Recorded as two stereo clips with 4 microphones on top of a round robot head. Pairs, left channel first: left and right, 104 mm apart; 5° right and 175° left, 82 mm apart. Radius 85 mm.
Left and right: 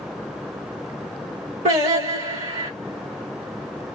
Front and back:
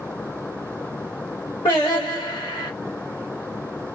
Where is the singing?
65° right, 2 m.